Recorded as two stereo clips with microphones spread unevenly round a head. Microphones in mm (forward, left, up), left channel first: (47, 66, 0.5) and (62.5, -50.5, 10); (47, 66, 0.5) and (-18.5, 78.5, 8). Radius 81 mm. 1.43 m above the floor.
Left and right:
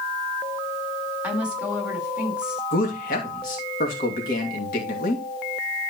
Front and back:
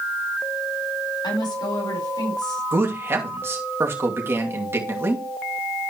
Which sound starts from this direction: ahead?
A woman speaking, at 1.2 s.